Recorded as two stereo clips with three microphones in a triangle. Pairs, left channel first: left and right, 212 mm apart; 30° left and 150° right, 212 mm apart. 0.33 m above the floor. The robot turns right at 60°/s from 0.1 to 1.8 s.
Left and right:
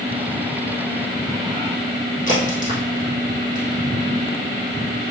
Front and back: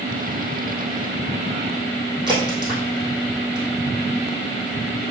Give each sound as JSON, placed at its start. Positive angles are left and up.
{"t": 2.3, "sound": "a crack", "azimuth_deg": 140, "distance_m": 3.5}